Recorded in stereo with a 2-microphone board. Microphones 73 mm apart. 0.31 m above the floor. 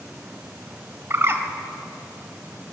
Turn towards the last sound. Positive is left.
turn(degrees=-35)  # may be behind; listen again after turning